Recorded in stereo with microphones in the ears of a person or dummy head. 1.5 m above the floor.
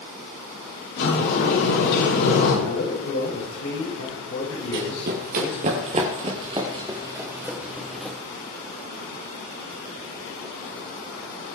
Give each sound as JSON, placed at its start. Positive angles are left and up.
{"t": 1.0, "sound": "a sliding door", "side_deg": 65, "distance_m": 9.0}
{"t": 2.6, "sound": "a man speaking", "side_deg": 80, "distance_m": 8.5}
{"t": 4.7, "sound": "running footsteps", "side_deg": -55, "distance_m": 2.5}